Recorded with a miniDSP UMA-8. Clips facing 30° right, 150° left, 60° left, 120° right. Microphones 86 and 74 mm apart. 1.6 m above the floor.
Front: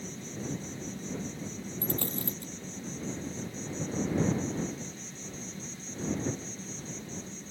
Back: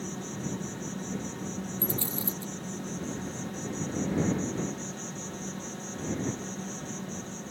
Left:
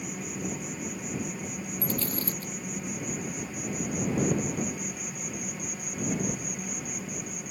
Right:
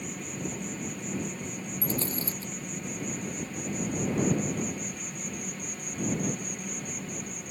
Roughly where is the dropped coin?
Ahead right.